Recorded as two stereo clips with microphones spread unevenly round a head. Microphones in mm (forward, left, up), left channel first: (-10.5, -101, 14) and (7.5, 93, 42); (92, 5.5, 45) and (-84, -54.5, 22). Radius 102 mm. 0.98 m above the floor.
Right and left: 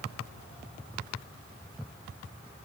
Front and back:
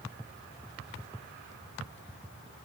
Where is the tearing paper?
No tearing paper in this recording.